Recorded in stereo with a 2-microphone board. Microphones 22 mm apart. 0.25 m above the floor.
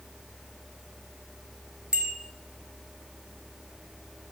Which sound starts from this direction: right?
A bicycle bell, at 1.9 s.